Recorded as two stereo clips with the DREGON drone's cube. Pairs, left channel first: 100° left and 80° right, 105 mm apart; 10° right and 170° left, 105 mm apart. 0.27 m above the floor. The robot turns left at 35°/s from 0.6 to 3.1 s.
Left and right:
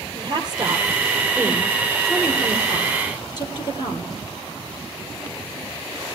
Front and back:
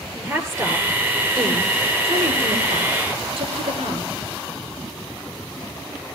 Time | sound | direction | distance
0.1 | a woman speaking | 125° right | 5 m